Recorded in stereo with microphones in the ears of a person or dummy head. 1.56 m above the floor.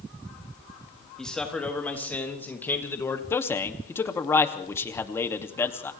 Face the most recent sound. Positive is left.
turn(degrees=20)  # may be behind; listen again after turning